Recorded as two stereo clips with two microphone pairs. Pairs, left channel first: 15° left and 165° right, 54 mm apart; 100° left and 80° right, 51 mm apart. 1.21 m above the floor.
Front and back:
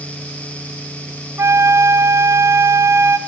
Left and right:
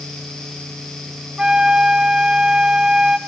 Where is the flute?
155° right, 0.7 m.